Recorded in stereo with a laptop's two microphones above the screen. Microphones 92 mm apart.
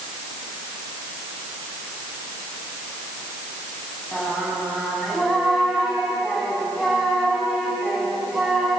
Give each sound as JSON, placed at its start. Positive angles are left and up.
{"t": 4.1, "sound": "singing", "side_deg": 0, "distance_m": 8.0}